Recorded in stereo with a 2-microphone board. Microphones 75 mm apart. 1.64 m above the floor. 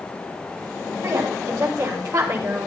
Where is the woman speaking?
50° right (ahead or behind), 6.5 m; by 2.7 s 40° right (ahead or behind), 6 m.